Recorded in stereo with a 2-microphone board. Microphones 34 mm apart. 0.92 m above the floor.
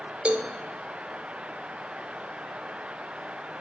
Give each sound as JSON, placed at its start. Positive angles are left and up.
{"t": 0.2, "sound": "a cowbell", "side_deg": -40, "distance_m": 1.2}